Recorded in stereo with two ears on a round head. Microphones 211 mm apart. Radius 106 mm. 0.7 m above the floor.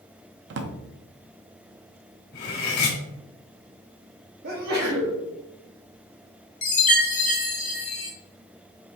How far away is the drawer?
About 0.5 m.